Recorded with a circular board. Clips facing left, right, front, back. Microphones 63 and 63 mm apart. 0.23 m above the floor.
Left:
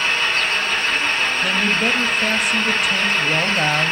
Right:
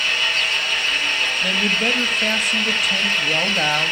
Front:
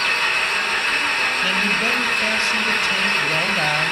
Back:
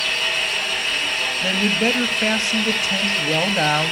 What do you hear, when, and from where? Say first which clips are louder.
0.0 s an engine running: left 2 dB, front 3 dB; 35° left, 1.6 m
1.4 s a man speaking: left 1 dB, even; 175° left, 1.0 m